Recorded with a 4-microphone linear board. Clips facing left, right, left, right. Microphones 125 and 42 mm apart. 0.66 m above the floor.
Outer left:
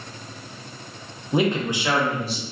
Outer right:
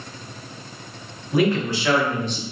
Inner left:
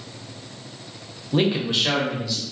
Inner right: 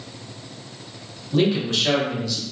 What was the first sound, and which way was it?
A man speaking, 25° left (ahead or behind).